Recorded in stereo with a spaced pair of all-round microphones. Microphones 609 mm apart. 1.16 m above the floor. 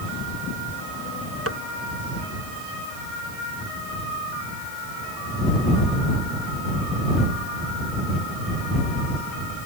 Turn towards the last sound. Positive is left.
turn(degrees=-25)  # may be behind; listen again after turning